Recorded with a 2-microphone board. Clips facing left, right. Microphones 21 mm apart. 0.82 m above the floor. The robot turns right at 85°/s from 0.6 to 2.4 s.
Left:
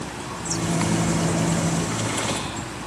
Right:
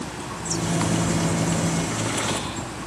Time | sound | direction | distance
0.4 | a microwave | 5° right | 3.5 m